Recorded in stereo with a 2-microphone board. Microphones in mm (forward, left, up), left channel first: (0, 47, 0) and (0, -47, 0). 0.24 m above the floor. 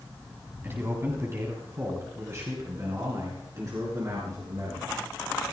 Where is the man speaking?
25° right (ahead or behind), 2 m; by 4.9 s 35° right (ahead or behind), 4 m.